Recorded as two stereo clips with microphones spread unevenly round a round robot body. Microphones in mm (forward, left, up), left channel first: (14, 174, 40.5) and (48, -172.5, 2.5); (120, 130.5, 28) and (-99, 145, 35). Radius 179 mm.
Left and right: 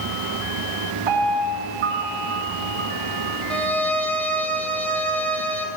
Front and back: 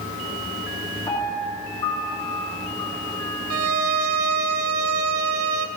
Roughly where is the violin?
Behind.